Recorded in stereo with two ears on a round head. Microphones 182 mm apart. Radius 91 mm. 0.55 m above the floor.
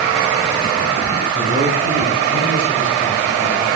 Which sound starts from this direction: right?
A man speaking, at 1.3 s.